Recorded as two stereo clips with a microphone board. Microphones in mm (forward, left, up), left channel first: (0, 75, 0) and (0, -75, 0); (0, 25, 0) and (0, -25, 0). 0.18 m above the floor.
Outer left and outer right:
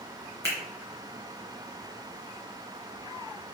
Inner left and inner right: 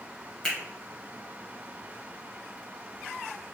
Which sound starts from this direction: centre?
A finger snap, at 0.4 s.